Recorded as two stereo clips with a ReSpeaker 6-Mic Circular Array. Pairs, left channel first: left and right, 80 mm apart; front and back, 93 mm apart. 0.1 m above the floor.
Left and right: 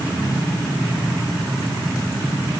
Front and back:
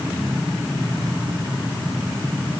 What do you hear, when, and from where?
Only background noise.